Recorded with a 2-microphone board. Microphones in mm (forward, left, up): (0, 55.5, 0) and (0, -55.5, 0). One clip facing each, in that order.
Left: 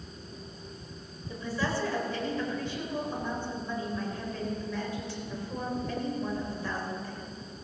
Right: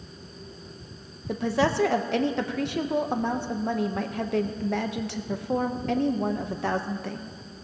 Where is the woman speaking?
75° right (ahead or behind), 0.9 m.